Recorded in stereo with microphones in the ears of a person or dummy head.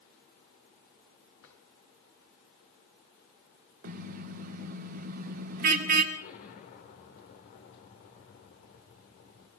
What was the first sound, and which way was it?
A drawer, 70° left (ahead or behind).